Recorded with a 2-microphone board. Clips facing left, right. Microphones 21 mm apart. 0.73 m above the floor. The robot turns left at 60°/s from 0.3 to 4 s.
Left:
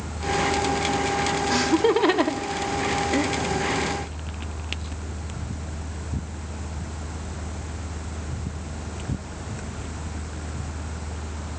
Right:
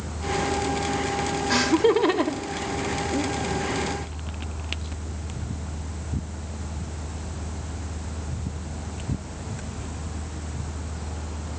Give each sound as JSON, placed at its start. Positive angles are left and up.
{"t": 1.5, "sound": "laughter", "side_deg": -15, "distance_m": 1.8}